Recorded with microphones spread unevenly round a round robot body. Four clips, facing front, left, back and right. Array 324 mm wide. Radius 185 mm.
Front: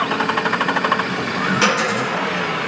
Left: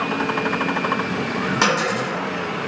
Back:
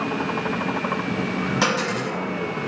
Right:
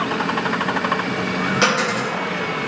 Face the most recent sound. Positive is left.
turn(degrees=150)